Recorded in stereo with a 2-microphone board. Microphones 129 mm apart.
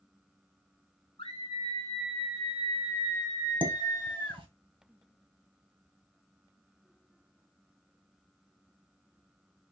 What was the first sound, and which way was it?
A scream, 50° left (ahead or behind).